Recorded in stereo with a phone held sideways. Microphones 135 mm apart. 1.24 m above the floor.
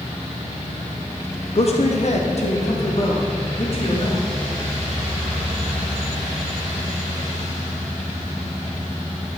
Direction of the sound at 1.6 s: 45° left (ahead or behind).